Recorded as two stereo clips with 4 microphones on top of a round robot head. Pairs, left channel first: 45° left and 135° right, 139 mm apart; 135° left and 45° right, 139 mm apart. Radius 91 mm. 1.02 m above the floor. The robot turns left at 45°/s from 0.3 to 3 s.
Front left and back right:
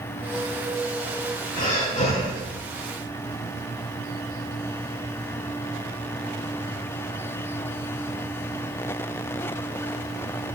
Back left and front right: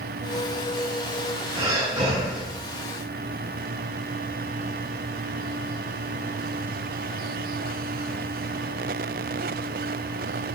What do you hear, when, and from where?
1.6 s breathing: 15° left, 4.5 m; by 2.4 s 25° right, 4.5 m